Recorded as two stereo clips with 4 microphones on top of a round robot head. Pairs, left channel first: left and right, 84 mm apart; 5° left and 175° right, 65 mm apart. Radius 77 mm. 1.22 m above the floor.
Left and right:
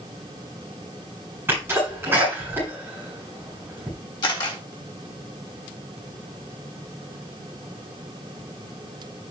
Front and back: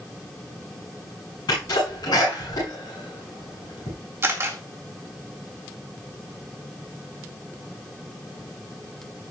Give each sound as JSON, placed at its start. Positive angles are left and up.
{"t": 1.5, "sound": "a sneeze", "azimuth_deg": -25, "distance_m": 7.5}
{"t": 4.2, "sound": "a camera shutter", "azimuth_deg": 135, "distance_m": 2.0}